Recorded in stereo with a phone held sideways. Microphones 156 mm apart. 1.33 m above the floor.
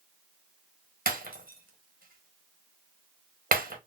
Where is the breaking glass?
65° right (ahead or behind), 1.0 m.